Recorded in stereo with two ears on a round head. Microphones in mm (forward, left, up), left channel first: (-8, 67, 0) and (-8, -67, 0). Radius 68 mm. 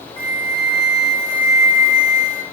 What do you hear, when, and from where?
0.2 s a flute: 35° left (ahead or behind), 1.2 m